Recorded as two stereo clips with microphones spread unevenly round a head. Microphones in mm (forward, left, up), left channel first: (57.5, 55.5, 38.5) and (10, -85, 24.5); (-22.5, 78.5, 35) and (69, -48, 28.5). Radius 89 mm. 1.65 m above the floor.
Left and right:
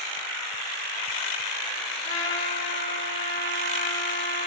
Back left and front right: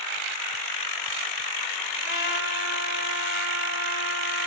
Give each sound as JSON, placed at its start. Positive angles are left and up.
{"t": 2.0, "sound": "a trumpet", "azimuth_deg": 125, "distance_m": 2.5}